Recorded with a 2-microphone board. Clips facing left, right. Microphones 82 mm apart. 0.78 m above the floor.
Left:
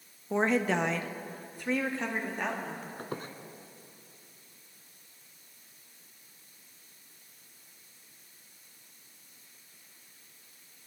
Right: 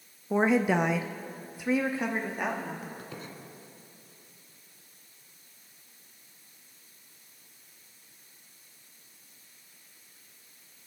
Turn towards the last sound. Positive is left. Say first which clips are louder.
# left 4 dB
turn(degrees=50)  # may be behind; listen again after turning